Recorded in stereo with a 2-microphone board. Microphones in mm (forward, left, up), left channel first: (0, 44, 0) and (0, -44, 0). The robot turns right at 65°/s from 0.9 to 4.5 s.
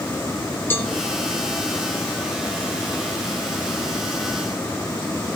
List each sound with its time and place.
0.7 s a cowbell: 25° left (ahead or behind), 1.2 m